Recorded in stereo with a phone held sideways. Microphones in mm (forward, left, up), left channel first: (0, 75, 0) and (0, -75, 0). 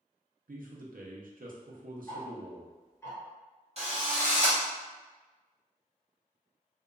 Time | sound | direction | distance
0.5 | a man speaking | 70° right (ahead or behind) | 0.5 m
2.1 | ticking | 15° left (ahead or behind) | 1.0 m
3.8 | a drill | 45° right (ahead or behind) | 0.8 m